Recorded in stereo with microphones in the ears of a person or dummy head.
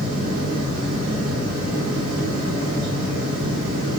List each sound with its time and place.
0.0 s a fan: 65° right (ahead or behind), 0.8 m